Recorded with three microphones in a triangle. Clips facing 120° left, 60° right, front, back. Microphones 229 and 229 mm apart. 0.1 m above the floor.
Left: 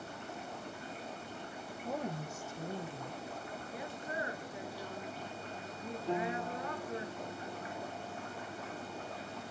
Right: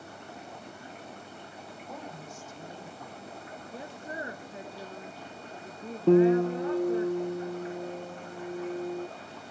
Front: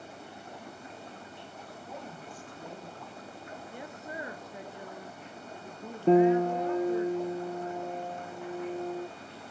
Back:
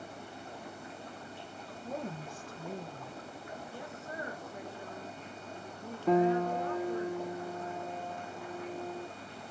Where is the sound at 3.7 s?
55° right, 1.3 m.